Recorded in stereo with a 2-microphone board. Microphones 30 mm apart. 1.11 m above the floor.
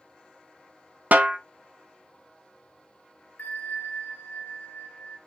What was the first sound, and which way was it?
A snare drum, 60° right (ahead or behind).